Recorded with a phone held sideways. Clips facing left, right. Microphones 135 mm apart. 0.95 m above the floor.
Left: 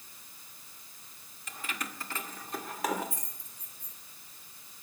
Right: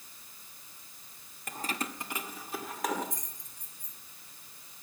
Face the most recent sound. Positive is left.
turn(degrees=10)  # may be behind; listen again after turning